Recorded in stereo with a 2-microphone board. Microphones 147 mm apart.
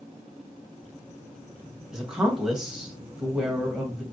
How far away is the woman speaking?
About 1.5 m.